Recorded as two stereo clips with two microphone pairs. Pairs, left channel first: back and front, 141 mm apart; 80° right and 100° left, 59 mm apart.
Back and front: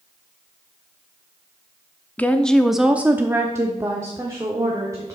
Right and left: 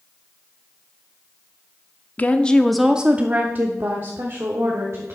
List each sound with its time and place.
2.2 s a woman speaking: 115° right, 0.7 m; by 5.2 s 65° left, 1.8 m